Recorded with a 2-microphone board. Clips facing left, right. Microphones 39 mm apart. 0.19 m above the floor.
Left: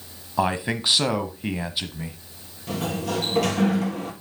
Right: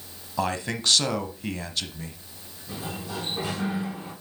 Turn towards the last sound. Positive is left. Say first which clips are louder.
# left 8 dB
turn(degrees=75)  # may be behind; listen again after turning